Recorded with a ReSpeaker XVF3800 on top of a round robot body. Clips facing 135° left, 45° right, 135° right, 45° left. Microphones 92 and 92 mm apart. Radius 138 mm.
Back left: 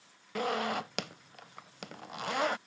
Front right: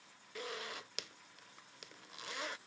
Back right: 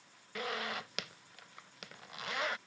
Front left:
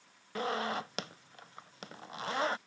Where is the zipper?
100° left.